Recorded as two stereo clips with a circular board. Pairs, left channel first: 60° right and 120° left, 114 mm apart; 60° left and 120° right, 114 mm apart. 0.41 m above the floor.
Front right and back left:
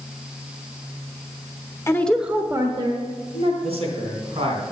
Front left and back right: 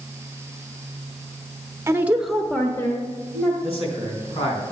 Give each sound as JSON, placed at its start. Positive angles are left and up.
{"t": 1.9, "sound": "a woman speaking", "azimuth_deg": -90, "distance_m": 0.9}
{"t": 3.6, "sound": "a man speaking", "azimuth_deg": 90, "distance_m": 3.0}